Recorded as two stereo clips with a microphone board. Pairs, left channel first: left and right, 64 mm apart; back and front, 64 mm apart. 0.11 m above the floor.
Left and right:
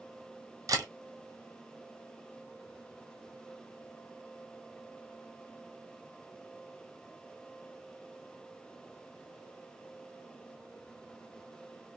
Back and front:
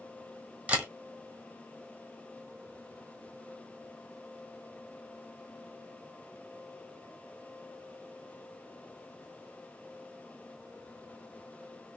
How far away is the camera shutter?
About 1.6 m.